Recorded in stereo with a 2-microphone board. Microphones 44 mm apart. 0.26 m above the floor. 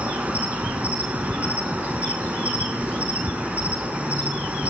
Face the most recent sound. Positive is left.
turn(degrees=-30)  # may be behind; listen again after turning